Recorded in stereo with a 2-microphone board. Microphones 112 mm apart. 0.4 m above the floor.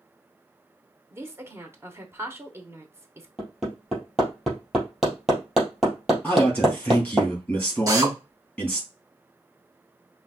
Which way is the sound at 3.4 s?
Centre (ahead or behind).